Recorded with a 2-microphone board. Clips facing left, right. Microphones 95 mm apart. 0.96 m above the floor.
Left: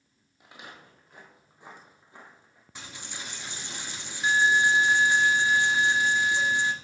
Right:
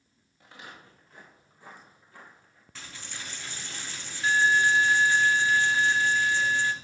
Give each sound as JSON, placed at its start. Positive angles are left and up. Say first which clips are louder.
{"t": 0.4, "sound": "footsteps", "louder": "even", "side_deg": 15, "distance_m": 1.7}
{"t": 2.8, "sound": "a dropped coin", "louder": "left 1 dB", "side_deg": 20, "distance_m": 0.6}